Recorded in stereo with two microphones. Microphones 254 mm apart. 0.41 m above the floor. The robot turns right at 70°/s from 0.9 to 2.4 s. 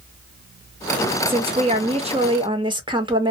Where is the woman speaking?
20° right (ahead or behind), 0.8 m.